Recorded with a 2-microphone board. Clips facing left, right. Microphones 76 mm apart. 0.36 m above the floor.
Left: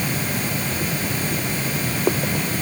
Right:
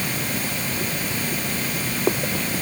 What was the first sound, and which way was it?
Only background noise.